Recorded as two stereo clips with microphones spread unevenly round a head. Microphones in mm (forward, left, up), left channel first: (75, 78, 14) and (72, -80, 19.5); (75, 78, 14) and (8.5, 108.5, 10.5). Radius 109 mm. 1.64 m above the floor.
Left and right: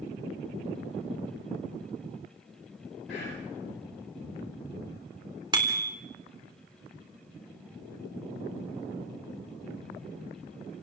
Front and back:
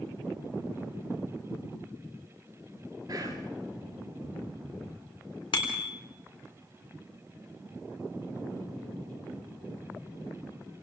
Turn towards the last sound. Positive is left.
turn(degrees=-30)